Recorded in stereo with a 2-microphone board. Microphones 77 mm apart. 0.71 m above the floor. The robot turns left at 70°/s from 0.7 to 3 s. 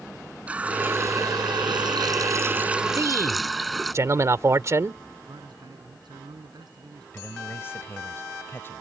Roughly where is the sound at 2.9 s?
Right.